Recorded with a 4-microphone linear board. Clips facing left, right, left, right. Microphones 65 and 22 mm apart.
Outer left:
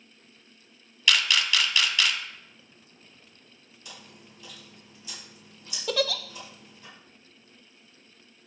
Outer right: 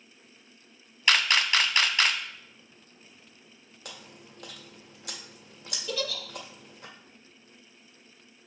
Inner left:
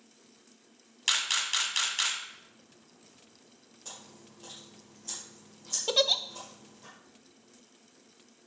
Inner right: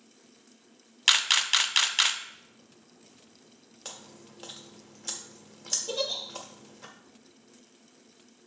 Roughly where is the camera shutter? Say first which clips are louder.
Outer right 1 dB, inner right 6 dB; right.